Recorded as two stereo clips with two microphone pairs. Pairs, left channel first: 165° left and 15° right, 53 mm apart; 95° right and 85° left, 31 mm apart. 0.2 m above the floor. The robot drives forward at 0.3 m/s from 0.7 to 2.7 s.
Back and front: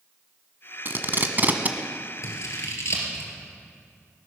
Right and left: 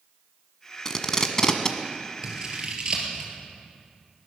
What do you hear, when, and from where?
0.8 s tape being pulled: 30° right, 1.2 m; by 1.8 s 45° right, 1.0 m
2.2 s scissors: 145° left, 3 m